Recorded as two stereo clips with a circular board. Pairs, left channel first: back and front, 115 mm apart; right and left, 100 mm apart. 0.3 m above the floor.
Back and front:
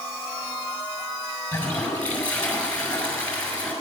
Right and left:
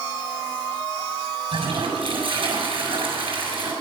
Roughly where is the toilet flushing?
Left.